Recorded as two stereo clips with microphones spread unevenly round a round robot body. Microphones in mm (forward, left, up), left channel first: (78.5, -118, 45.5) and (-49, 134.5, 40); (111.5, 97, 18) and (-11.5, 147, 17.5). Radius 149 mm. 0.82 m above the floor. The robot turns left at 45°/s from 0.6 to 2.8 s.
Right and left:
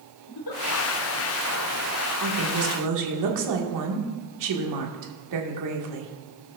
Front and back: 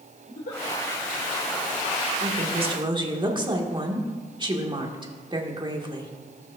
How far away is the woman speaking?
About 1.8 m.